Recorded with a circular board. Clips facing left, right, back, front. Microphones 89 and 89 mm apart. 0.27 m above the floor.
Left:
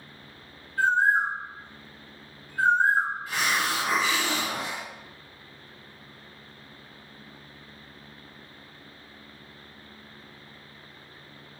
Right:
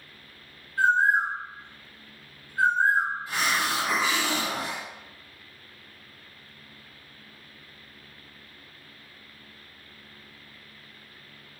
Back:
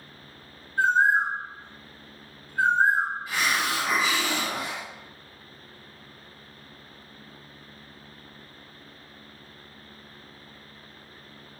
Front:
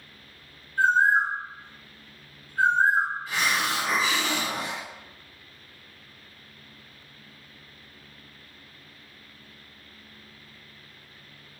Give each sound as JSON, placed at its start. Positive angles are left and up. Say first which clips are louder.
{"t": 0.8, "sound": "a bird", "louder": "right 1 dB, even", "azimuth_deg": -125, "distance_m": 1.4}
{"t": 3.3, "sound": "a hiss", "louder": "even, even", "azimuth_deg": -125, "distance_m": 1.6}